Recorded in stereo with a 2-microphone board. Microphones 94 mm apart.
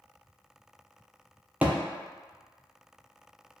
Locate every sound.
1.6 s a thud: 20° right (ahead or behind), 0.5 m